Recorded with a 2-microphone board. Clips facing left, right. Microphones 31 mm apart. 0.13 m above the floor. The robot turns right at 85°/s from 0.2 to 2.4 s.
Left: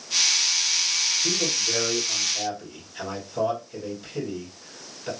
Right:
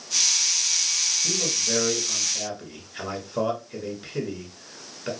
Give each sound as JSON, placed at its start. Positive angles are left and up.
{"t": 1.2, "sound": "a man speaking", "side_deg": 5, "distance_m": 1.5}